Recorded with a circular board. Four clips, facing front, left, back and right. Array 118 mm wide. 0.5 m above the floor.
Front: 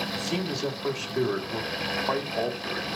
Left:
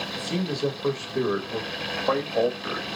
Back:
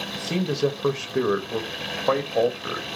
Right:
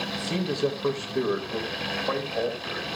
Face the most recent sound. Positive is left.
turn(degrees=150)